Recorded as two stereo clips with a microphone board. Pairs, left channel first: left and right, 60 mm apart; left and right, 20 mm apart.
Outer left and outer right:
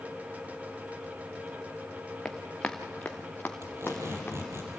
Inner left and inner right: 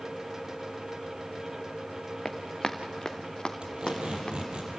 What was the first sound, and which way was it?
Running footsteps, 15° left (ahead or behind).